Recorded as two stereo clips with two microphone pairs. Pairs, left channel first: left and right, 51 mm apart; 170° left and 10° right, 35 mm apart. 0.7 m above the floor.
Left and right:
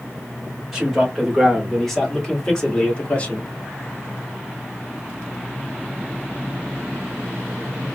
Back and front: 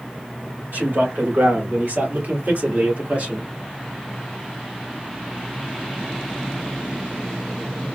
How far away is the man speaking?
About 2.5 m.